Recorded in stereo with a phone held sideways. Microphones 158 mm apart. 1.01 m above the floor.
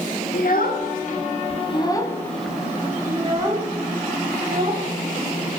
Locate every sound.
0.3 s a child speaking: 75° left (ahead or behind), 2.0 m; by 4.8 s 40° right (ahead or behind), 3 m